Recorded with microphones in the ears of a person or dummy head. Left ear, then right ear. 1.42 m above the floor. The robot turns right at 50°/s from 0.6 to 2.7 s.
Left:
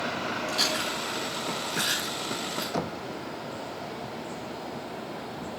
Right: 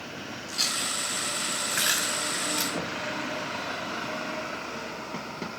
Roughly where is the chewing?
Left.